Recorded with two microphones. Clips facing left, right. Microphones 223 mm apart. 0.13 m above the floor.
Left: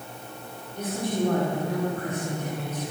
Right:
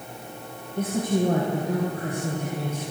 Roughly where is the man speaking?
Right.